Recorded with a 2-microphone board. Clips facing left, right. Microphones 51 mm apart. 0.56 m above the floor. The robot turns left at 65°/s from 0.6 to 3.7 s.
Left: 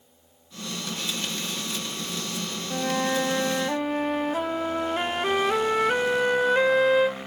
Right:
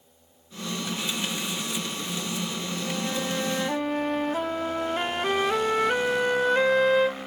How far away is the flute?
About 0.6 m.